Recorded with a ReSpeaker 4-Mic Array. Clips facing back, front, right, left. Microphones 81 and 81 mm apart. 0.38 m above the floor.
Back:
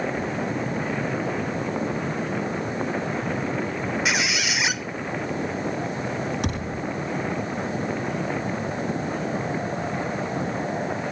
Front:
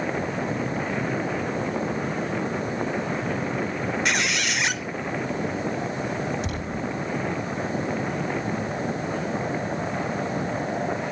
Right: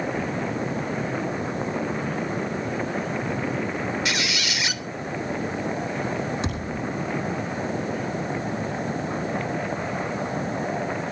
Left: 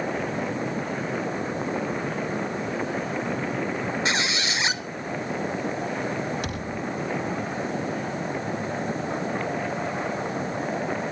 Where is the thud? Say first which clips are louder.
Back 1 dB, right 2 dB; 155° right, 6.5 m.